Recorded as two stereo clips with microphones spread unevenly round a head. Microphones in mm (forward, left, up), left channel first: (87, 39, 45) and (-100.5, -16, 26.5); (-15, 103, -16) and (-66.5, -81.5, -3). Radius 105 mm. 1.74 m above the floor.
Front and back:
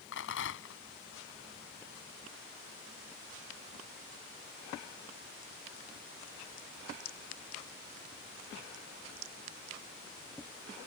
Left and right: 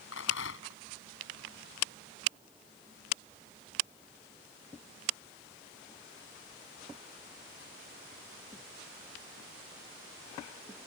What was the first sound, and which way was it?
A rattle, 40° left.